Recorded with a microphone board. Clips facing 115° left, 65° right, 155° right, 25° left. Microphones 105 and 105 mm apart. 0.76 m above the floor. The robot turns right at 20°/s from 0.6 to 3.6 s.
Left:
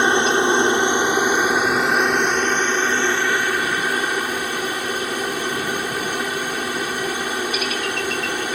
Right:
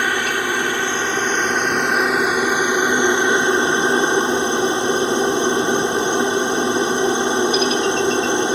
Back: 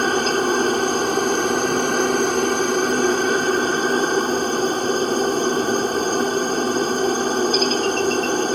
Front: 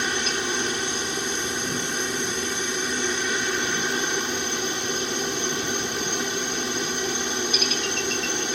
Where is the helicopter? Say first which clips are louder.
Left 4 dB, back 9 dB; 175° left; by 8.6 s 125° right.